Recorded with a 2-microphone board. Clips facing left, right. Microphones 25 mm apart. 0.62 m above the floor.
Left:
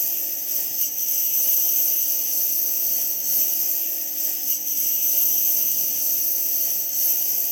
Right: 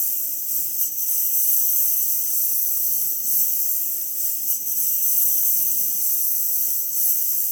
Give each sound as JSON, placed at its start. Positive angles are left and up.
{"t": 0.0, "sound": "a lawn mower", "side_deg": 30}